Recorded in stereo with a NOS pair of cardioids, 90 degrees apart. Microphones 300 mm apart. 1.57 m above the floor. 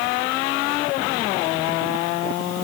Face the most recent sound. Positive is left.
No sound to turn to.